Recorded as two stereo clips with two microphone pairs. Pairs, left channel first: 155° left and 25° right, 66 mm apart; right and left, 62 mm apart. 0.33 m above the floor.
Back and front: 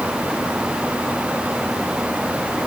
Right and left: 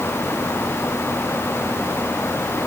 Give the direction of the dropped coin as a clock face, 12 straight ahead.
I don't hear a dropped coin.